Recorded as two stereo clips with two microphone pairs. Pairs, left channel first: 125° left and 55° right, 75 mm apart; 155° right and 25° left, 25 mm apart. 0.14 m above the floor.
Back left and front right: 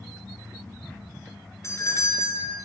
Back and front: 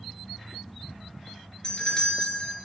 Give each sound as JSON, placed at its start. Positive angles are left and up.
{"t": 1.6, "sound": "a doorbell", "azimuth_deg": 160, "distance_m": 2.5}